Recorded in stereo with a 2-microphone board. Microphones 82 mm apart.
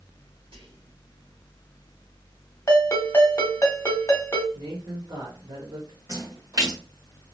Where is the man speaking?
65° right (ahead or behind), 1.3 m.